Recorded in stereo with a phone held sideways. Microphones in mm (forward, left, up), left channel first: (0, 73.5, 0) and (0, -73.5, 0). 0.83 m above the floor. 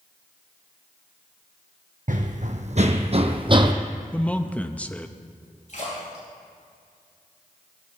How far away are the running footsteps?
About 1.6 m.